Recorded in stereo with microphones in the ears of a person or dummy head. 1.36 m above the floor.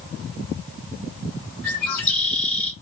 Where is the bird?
10° left (ahead or behind), 1.7 m.